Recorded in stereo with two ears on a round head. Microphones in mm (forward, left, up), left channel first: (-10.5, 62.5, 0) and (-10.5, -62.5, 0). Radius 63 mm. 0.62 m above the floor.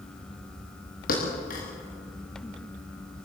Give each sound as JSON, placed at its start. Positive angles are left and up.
{"t": 1.1, "sound": "a thud", "side_deg": 65, "distance_m": 6.5}